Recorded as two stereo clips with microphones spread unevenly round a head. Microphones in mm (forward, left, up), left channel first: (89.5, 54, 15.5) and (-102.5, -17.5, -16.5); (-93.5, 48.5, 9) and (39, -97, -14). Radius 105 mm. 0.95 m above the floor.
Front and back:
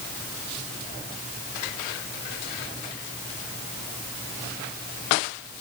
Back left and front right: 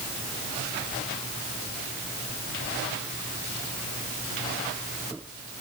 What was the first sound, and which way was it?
Only background noise.